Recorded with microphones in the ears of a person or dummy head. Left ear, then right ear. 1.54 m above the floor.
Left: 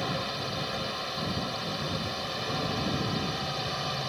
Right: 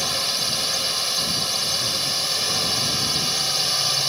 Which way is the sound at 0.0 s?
75° right (ahead or behind).